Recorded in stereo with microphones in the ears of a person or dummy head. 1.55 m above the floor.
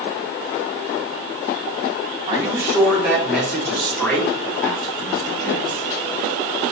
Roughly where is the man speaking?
Right.